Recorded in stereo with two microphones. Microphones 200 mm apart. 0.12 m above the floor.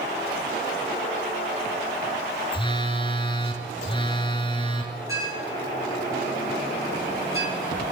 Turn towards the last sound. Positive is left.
turn(degrees=-15)  # may be behind; listen again after turning